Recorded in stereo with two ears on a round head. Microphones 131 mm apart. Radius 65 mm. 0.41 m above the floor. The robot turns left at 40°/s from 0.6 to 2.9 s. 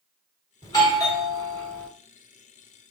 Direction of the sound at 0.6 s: 25° left (ahead or behind).